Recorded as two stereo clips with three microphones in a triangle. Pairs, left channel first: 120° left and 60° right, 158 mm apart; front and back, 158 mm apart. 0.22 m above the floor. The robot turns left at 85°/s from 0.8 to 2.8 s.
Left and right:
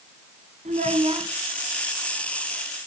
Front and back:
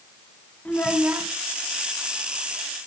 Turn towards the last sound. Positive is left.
turn(degrees=110)